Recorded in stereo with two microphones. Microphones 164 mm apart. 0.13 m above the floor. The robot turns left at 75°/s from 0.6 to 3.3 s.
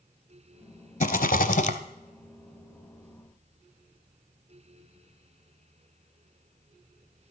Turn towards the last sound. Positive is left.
turn(degrees=-55)